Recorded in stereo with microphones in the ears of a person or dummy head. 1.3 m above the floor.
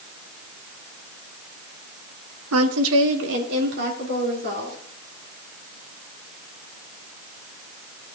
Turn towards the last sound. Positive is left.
turn(degrees=-45)  # may be behind; listen again after turning